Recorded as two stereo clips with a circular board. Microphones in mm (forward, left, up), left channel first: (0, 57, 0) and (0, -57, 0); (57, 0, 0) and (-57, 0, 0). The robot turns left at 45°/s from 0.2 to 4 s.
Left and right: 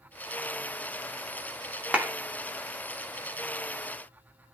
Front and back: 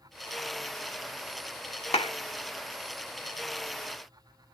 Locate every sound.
1.9 s a clap: 10° right, 1.9 m; by 2.1 s 20° right, 1.9 m